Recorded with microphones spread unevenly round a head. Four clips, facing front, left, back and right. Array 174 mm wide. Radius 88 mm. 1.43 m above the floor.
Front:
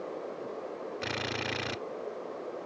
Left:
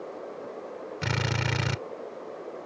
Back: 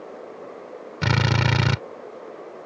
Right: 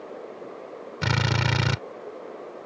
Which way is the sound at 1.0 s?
170° right.